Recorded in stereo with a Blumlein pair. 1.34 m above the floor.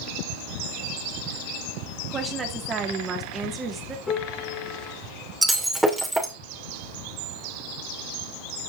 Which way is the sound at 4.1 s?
20° left.